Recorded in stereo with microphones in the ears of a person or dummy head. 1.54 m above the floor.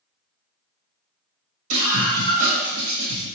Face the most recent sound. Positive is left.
turn(degrees=-45)  # may be behind; listen again after turning